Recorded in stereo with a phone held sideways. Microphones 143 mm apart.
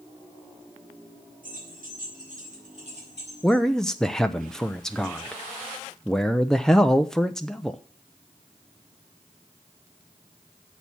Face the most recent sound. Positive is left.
turn(degrees=5)  # may be behind; listen again after turning